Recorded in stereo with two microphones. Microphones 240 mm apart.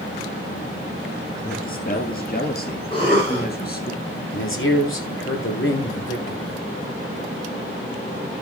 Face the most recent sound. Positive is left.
turn(degrees=60)  # may be behind; listen again after turning